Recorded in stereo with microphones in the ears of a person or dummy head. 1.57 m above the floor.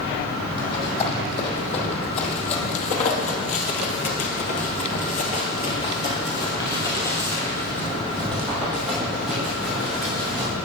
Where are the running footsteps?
35° left (ahead or behind), 4 m; by 10.5 s 5° right (ahead or behind), 4.5 m.